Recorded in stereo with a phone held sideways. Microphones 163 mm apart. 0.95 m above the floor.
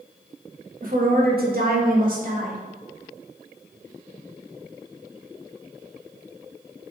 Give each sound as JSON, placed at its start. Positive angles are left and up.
{"t": 0.8, "sound": "a woman speaking", "side_deg": -55, "distance_m": 1.4}